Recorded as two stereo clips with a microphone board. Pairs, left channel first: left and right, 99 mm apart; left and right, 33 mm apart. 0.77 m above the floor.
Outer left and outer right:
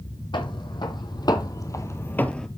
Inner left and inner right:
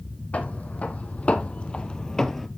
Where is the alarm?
I don't hear an alarm.